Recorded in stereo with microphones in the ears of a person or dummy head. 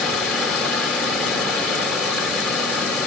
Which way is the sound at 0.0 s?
Centre (ahead or behind).